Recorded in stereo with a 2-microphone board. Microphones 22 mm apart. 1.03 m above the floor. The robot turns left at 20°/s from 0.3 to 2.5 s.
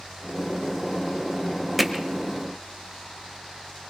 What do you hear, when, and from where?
1.8 s hammering: 5° right (ahead or behind), 1.3 m; by 2.0 s 10° right (ahead or behind), 1.3 m